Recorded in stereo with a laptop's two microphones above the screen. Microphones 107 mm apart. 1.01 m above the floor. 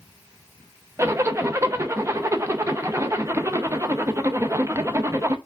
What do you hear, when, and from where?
1.0 s a zipper: 30° right (ahead or behind), 0.5 m